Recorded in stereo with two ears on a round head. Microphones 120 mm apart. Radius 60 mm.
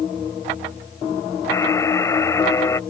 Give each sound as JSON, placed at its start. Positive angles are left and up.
{"t": 1.5, "sound": "a buzzer", "side_deg": 20}